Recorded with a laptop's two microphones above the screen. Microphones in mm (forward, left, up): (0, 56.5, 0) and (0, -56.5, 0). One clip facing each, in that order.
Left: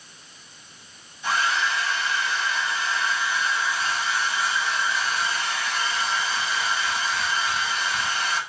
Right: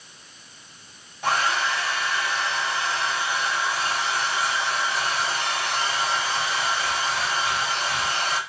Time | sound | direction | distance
1.2 | a hair dryer | 70° right (ahead or behind) | 4.5 m